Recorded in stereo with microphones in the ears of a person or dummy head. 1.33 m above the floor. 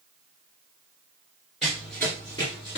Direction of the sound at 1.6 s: 5° right (ahead or behind).